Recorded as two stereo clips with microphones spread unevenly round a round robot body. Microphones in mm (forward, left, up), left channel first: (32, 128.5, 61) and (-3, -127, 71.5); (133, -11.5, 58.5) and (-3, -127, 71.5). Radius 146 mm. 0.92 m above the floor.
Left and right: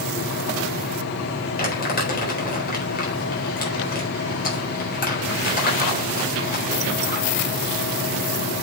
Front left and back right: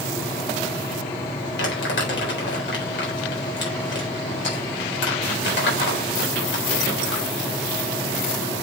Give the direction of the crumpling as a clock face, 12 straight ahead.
11 o'clock.